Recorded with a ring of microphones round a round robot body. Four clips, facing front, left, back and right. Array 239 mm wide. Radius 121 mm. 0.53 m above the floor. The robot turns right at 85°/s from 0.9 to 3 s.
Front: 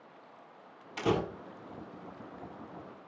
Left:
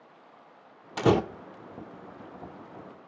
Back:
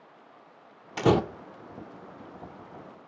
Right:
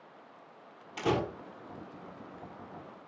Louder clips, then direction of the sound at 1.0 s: Left 7 dB, back 7 dB; 125° left.